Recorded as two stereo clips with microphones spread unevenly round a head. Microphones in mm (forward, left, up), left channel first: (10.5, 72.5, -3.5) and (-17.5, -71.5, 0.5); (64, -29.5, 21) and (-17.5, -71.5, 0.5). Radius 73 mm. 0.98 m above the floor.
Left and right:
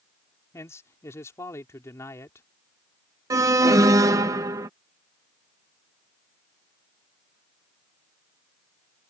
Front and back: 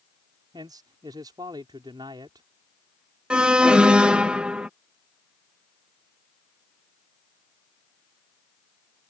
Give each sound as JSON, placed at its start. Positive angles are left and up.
{"t": 0.5, "sound": "a man speaking", "azimuth_deg": 150}
{"t": 3.3, "sound": "an alarm", "azimuth_deg": -135}